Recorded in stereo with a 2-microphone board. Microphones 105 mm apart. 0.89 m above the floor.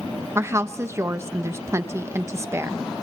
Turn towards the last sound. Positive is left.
turn(degrees=-25)  # may be behind; listen again after turning